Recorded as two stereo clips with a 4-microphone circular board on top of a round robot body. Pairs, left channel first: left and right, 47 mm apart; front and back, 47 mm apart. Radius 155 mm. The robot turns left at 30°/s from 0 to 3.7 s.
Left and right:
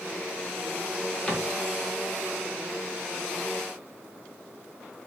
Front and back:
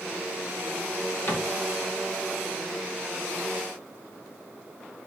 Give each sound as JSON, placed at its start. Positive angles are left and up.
{"t": 1.3, "sound": "a cupboard door", "azimuth_deg": 30, "distance_m": 1.6}